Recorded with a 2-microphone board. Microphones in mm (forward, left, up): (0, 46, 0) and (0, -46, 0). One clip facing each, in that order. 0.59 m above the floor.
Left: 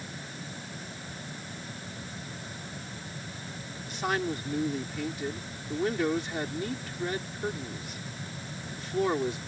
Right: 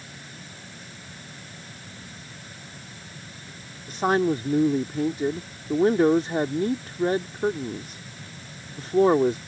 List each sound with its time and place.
3.9 s a man speaking: 40° right (ahead or behind)